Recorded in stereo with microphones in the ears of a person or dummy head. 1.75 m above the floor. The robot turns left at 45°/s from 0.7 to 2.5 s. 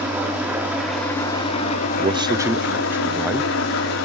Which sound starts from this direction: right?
A man speaking, at 2.0 s.